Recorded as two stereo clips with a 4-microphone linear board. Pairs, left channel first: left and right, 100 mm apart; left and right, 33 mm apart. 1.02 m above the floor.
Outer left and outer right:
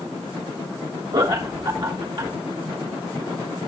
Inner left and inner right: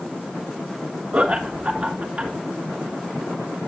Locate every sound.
1.1 s laughter: 50° right (ahead or behind), 2.0 m